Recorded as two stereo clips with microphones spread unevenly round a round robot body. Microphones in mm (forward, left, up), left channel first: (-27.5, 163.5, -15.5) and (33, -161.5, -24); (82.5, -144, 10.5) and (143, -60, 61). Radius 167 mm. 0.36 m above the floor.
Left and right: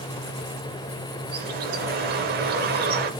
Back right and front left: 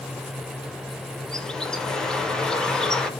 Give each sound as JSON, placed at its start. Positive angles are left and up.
{"t": 1.3, "sound": "a bird", "azimuth_deg": -110, "distance_m": 0.7}